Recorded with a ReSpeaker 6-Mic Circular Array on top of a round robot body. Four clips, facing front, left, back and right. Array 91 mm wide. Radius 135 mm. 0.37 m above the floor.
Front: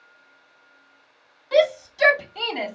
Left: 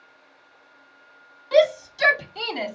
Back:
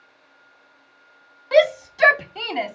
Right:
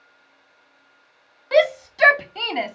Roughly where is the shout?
Behind right.